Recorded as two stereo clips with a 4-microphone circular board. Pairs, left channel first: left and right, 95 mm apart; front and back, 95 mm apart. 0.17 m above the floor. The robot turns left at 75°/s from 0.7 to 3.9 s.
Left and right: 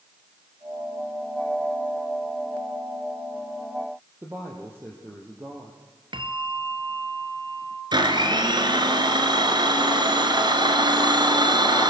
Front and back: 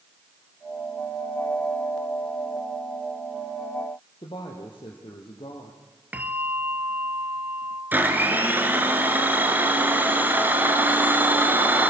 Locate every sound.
4.2 s a woman speaking: 25° right, 4 m
6.1 s a bell: 110° right, 1.4 m
7.9 s a blender: 115° right, 2.5 m